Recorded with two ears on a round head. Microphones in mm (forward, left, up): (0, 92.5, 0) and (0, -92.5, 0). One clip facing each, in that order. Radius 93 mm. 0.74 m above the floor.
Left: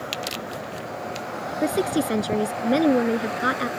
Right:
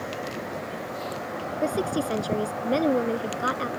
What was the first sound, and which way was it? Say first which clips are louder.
A woman speaking: left 4 dB; 25° left (ahead or behind).